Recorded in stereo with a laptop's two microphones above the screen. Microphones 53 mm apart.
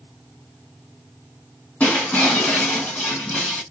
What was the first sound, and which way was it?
Breaking glass, 25° left (ahead or behind).